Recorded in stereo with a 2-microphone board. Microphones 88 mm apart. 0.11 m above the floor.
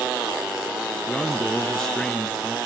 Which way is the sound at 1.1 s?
5° left (ahead or behind).